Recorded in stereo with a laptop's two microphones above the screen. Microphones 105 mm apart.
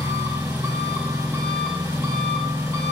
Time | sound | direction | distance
0.0 | an engine running | 35° right (ahead or behind) | 2 m